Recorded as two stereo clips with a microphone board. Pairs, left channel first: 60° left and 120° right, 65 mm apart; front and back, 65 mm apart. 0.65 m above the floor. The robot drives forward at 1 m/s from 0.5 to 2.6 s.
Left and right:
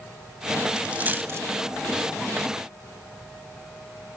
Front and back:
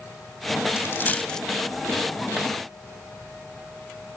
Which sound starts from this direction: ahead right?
A dropped coin, at 0.8 s.